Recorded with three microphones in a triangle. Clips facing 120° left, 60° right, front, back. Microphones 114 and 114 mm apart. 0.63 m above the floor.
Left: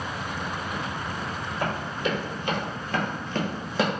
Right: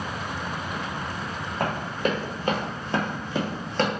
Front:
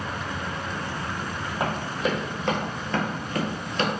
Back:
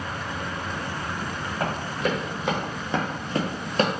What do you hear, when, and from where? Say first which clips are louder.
1.6 s running footsteps: right 3 dB, even; 75° right, 1.2 m; by 3.9 s 165° right, 0.8 m